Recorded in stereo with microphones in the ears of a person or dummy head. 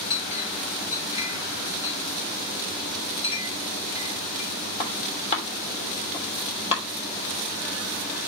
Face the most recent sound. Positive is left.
turn(degrees=35)  # may be behind; listen again after turning